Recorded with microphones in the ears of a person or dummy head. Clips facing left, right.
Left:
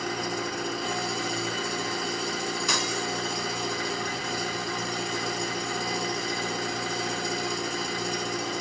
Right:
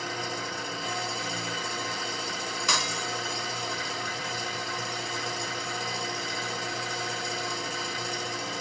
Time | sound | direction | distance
0.0 | an engine running | 45° left (ahead or behind) | 1.5 m
2.7 | breaking glass | 45° right (ahead or behind) | 0.8 m